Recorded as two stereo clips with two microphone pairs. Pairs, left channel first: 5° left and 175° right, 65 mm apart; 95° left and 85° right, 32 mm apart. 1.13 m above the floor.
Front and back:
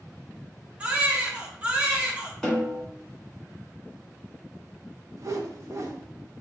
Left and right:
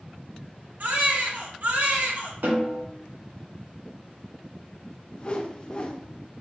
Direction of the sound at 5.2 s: 150° left.